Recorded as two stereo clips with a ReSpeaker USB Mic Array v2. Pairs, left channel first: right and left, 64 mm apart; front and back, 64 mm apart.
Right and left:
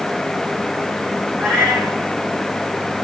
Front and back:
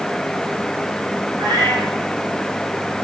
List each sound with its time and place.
1.4 s a cat meowing: 165° right, 5.5 m